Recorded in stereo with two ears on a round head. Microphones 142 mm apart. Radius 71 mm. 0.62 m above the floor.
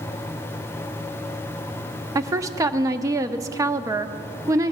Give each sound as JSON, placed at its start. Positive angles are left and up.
{"t": 2.1, "sound": "a woman speaking", "side_deg": -20, "distance_m": 0.6}